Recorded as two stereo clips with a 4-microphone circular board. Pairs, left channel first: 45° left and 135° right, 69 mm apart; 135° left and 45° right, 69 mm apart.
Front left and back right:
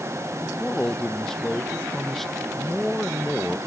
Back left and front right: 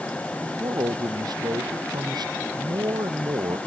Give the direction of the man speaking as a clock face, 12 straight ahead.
1 o'clock.